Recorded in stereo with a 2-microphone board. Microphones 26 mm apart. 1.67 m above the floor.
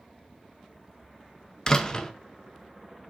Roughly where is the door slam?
Left.